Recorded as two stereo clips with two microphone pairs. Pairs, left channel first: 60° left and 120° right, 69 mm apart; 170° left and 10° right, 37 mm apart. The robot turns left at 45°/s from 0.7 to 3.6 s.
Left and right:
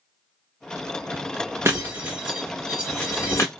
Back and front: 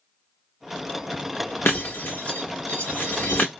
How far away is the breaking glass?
About 1.0 m.